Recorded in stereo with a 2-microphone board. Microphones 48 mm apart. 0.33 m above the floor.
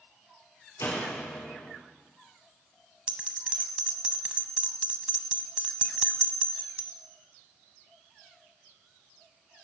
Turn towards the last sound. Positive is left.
turn(degrees=-25)  # may be behind; listen again after turning